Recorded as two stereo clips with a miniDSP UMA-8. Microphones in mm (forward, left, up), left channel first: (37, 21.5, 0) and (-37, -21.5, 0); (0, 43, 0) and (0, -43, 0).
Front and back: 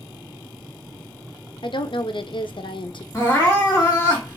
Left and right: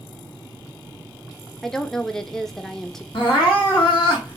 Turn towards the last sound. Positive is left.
turn(degrees=85)